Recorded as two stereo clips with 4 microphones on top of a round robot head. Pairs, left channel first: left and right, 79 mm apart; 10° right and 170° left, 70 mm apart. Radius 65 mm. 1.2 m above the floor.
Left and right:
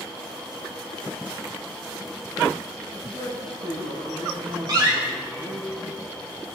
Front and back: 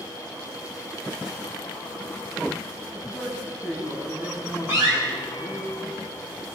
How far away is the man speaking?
About 9 m.